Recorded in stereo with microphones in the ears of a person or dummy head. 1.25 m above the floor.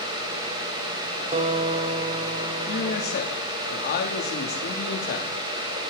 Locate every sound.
1.3 s a guitar: 35° right (ahead or behind), 2 m
2.7 s a man speaking: 50° left (ahead or behind), 3 m